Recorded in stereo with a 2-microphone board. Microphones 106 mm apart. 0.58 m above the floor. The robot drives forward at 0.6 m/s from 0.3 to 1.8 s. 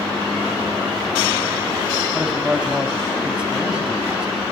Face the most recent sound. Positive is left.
turn(degrees=-10)  # may be behind; listen again after turning